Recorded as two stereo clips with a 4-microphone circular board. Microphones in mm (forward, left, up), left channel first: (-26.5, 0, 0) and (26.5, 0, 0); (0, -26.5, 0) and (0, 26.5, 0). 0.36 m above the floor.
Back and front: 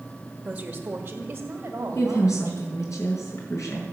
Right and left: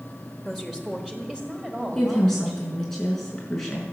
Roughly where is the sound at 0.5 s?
Ahead.